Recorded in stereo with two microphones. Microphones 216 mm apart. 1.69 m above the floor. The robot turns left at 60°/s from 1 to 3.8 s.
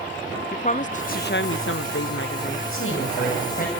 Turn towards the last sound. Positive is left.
turn(degrees=35)